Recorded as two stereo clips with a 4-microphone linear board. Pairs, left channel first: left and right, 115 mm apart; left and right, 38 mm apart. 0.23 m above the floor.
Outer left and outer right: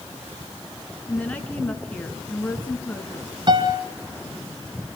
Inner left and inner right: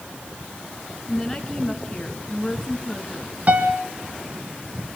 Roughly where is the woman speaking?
Centre.